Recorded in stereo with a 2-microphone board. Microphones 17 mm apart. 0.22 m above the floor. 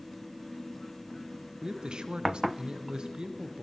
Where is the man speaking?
50° right (ahead or behind), 1.8 m.